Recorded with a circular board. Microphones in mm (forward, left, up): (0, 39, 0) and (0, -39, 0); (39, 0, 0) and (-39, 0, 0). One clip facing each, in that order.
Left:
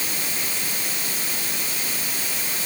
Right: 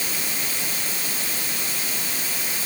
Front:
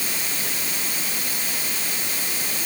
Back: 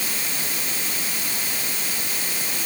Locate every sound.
Only background noise.